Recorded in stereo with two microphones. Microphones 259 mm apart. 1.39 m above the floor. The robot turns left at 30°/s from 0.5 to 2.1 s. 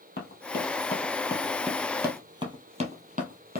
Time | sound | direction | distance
0.2 | running footsteps | 40° left (ahead or behind) | 1.8 m